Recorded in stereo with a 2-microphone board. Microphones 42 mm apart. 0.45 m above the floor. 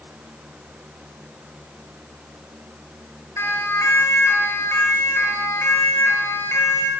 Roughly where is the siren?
Left.